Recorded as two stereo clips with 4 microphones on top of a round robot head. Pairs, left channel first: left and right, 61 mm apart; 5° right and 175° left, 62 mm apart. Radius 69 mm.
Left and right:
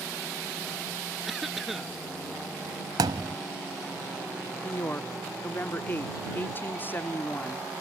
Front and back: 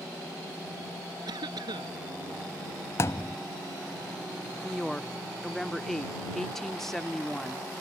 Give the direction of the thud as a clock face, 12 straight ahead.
2 o'clock.